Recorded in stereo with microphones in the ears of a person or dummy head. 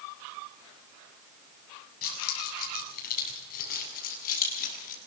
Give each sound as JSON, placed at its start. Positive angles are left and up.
{"t": 2.0, "sound": "keys jangling", "side_deg": 45, "distance_m": 7.5}